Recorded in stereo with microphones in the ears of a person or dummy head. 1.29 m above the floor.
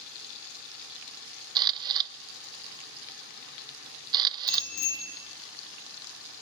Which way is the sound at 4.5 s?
75° left (ahead or behind).